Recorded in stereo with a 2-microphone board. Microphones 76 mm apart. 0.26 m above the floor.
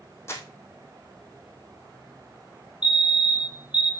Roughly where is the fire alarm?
Centre.